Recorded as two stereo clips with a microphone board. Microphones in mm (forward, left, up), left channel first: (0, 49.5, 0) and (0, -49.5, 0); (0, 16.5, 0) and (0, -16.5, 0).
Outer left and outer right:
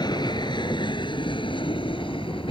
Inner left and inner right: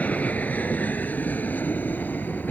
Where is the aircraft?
50° left (ahead or behind); by 2.5 s 65° left (ahead or behind).